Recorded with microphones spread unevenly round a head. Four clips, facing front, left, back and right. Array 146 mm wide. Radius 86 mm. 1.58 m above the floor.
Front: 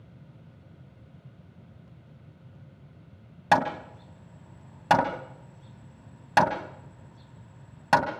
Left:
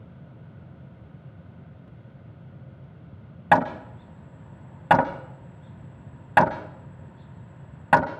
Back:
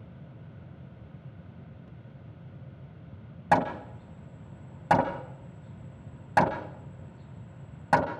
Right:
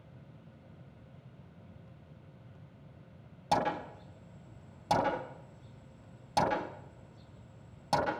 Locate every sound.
3.5 s hammering: 60° left, 2.5 m